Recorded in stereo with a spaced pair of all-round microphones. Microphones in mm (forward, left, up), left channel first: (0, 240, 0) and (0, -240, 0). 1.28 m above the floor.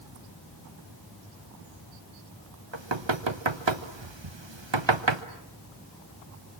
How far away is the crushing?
No crushing in this recording.